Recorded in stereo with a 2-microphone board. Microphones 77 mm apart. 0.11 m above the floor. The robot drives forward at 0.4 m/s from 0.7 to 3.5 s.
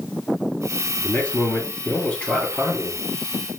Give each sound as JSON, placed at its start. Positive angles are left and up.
{"t": 1.0, "sound": "a man speaking", "side_deg": 20, "distance_m": 1.6}